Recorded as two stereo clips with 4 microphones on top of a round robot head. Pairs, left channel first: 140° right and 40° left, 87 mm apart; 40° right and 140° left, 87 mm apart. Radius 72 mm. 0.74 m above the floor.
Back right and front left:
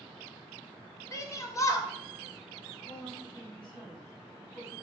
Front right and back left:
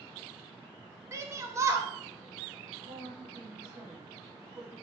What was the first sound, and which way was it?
A shout, 175° right.